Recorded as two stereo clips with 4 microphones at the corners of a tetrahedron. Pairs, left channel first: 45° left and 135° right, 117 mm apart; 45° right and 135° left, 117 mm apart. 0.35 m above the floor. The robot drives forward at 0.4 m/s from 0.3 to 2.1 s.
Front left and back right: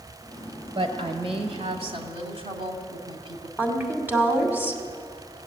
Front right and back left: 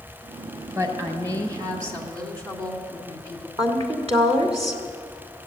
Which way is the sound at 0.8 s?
170° right.